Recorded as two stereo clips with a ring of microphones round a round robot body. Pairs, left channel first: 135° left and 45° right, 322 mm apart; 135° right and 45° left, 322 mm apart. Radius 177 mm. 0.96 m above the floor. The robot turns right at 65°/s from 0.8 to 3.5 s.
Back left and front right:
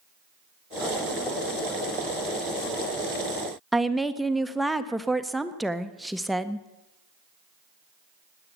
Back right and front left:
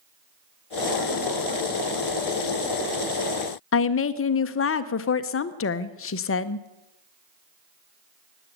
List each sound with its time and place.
3.7 s a woman speaking: 135° right, 0.8 m